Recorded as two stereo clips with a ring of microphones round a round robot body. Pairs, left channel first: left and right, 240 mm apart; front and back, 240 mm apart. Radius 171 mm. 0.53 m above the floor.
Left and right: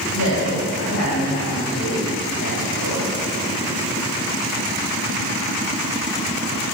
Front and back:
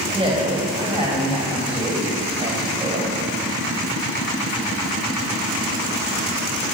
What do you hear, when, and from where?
0.1 s a woman speaking: 115° left, 3 m